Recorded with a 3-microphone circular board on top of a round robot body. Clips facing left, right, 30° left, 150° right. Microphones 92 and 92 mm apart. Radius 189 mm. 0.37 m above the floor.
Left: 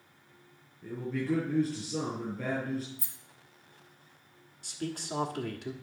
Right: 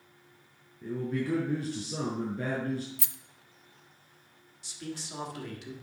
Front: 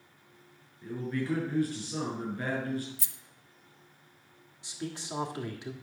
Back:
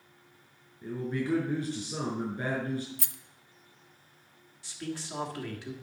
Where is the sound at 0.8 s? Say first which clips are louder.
Right 2 dB, back 1 dB; 85° right, 6 m.